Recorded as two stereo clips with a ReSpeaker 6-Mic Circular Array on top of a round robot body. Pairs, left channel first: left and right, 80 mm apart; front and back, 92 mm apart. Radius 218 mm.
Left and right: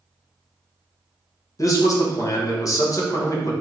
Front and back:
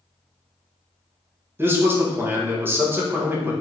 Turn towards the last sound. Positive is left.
turn(degrees=120)